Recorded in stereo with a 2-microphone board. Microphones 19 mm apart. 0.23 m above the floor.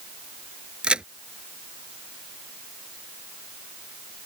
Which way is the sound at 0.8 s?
60° right (ahead or behind).